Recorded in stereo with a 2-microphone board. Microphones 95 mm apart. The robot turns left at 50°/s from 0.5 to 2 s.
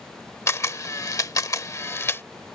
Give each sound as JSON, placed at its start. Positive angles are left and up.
{"t": 0.5, "sound": "a camera shutter", "side_deg": 30}